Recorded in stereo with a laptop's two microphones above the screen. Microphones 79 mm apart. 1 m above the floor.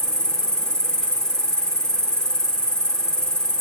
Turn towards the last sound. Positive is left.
turn(degrees=10)  # may be behind; listen again after turning